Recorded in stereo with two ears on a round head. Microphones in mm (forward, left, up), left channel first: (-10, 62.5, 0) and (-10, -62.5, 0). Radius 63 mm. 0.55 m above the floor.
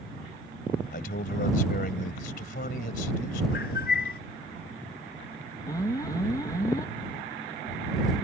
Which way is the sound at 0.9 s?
65° left (ahead or behind).